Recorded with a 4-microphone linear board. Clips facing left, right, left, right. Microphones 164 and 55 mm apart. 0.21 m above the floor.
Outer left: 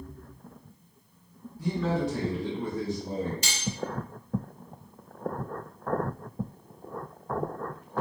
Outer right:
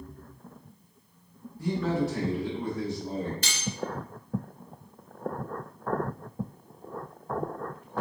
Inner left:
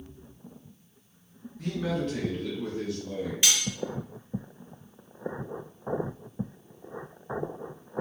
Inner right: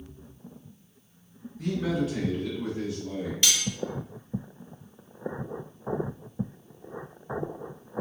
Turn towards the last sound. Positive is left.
turn(degrees=15)  # may be behind; listen again after turning